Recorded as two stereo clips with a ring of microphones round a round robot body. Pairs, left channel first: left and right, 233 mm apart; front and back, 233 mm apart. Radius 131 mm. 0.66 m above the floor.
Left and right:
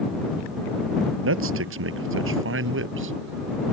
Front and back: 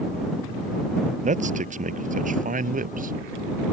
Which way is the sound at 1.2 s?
120° right.